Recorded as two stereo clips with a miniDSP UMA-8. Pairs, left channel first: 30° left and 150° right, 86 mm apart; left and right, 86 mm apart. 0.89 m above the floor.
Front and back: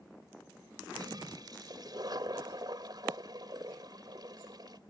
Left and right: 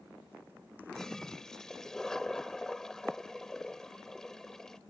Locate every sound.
0.9 s a toilet flushing: 175° left